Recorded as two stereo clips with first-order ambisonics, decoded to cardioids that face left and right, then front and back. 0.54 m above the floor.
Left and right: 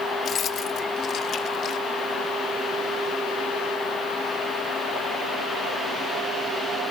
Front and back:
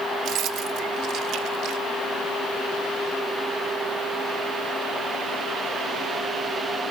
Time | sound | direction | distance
0.2 | keys jangling | 145° left | 1.1 m